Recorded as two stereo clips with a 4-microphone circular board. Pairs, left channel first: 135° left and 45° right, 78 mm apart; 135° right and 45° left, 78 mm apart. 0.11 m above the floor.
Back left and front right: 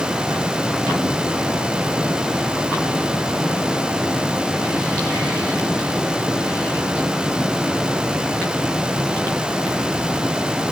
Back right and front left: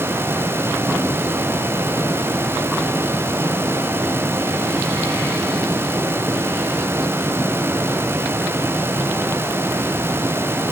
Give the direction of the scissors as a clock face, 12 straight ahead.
No scissors in this recording.